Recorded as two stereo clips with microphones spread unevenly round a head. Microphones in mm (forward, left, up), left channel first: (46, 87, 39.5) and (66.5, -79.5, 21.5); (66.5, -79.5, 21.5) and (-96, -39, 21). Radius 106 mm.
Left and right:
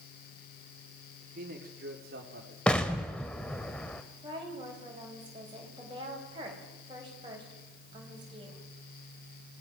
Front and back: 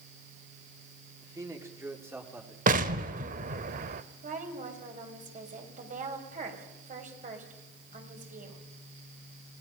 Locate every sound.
1.2 s a man speaking: 125° right, 2.5 m; by 2.6 s 115° right, 3.5 m
2.7 s an explosion: 175° left, 0.8 m
4.2 s a woman speaking: 150° right, 4.5 m